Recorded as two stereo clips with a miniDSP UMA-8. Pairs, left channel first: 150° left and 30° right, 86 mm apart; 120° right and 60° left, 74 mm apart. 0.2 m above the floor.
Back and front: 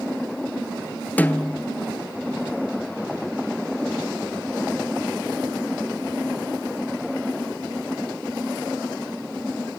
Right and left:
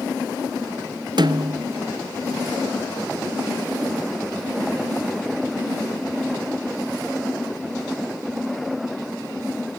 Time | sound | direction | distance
1.2 | a snare drum | 80° left | 0.8 m